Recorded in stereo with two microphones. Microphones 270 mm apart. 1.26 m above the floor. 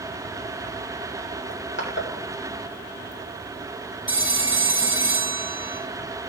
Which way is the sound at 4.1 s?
50° right (ahead or behind).